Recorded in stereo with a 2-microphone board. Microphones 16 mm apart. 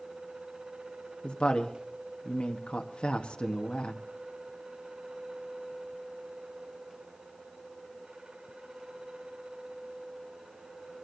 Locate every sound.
1.2 s a woman speaking: 85° left, 1.2 m